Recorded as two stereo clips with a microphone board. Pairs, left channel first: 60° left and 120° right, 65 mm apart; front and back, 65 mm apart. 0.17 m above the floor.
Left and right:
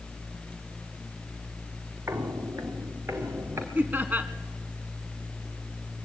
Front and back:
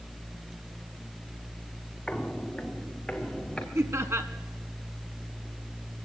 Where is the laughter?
170° right, 1.6 m.